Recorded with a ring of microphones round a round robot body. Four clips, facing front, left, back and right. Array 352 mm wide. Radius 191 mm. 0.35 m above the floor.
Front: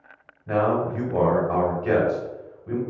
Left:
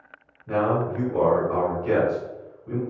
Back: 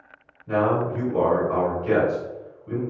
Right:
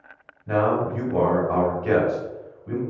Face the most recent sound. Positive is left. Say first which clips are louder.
# right 2 dB, even
turn(degrees=-35)